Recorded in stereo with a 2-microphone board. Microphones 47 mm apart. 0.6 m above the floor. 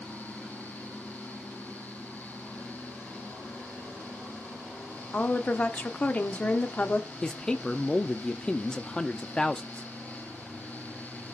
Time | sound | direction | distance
5.1 | a woman speaking | 35° left (ahead or behind) | 0.9 m
7.2 | a man speaking | 15° left (ahead or behind) | 0.5 m